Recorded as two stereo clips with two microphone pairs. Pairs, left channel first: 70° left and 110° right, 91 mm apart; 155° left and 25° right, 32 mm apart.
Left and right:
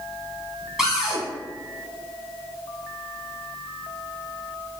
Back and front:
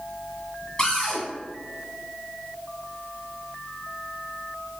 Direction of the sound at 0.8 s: Straight behind.